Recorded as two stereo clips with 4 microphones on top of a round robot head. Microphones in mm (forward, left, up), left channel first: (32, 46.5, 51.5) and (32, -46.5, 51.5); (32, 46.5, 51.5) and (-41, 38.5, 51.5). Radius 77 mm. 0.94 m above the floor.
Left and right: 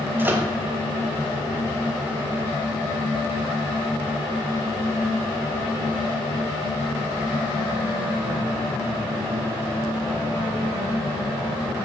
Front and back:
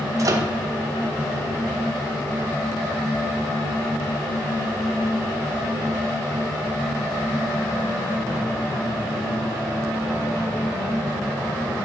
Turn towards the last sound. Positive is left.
turn(degrees=-155)